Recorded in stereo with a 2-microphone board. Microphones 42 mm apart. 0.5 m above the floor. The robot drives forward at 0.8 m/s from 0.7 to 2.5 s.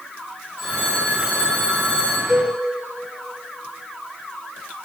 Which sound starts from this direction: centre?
A cowbell, at 2.3 s.